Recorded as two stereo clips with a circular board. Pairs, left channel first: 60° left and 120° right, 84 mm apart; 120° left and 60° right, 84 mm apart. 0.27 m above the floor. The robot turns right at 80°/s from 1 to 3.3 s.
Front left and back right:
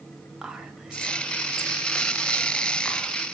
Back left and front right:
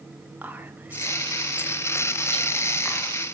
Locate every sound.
0.4 s whispering: 50° right, 0.9 m; by 3.2 s 120° left, 0.9 m